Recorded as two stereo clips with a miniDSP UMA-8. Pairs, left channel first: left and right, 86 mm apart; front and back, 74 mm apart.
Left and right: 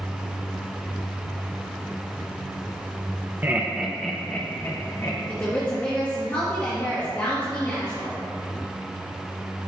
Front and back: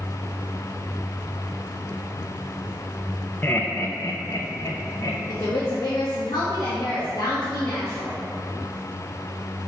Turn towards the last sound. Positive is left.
turn(degrees=25)